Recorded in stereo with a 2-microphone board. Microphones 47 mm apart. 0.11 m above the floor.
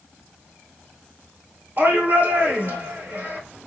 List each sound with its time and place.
1.8 s a shout: 55° right (ahead or behind), 2 m